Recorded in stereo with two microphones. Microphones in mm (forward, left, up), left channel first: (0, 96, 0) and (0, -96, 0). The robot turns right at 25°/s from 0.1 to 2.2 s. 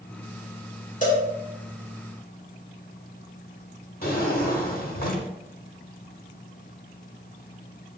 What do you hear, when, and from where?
1.0 s a cowbell: 40° left (ahead or behind), 1.0 m
4.0 s a drawer: 50° left (ahead or behind), 1.0 m